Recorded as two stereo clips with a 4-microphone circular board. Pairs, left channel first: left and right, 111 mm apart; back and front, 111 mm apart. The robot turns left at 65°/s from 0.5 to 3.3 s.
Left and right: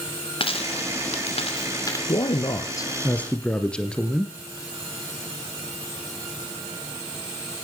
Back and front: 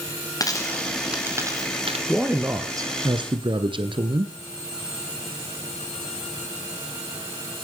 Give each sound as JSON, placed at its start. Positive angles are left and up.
{"t": 0.4, "sound": "a dropped coin", "azimuth_deg": 125, "distance_m": 2.5}
{"t": 2.1, "sound": "a man speaking", "azimuth_deg": 90, "distance_m": 1.8}